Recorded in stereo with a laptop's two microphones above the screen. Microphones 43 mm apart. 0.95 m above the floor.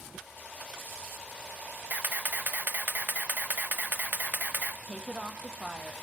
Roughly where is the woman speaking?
Centre.